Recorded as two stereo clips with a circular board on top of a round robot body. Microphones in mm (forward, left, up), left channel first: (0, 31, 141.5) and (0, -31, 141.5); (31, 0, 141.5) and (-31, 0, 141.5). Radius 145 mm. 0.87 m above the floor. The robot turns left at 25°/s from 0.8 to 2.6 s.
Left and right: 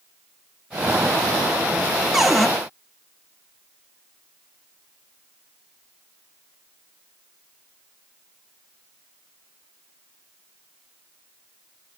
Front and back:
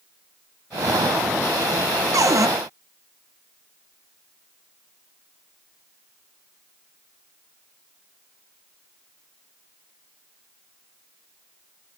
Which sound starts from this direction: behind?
A cupboard door, at 2.1 s.